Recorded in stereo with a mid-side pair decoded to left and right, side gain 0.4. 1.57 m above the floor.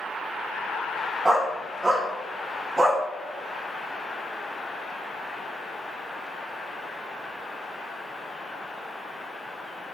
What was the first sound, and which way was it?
A dog barking, 25° right.